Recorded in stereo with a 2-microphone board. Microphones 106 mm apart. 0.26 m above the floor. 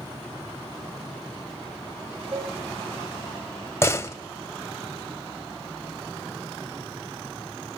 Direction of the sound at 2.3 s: 70° right (ahead or behind).